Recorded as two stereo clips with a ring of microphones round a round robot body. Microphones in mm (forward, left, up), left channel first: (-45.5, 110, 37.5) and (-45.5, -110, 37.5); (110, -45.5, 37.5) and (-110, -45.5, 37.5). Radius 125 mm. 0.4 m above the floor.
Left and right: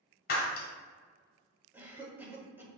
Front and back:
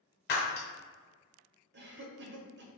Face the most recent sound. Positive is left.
turn(degrees=-170)